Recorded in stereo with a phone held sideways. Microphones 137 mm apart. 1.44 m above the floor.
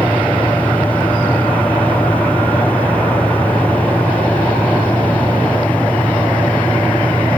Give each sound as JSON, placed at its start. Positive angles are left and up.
{"t": 0.0, "sound": "a fan", "side_deg": 10}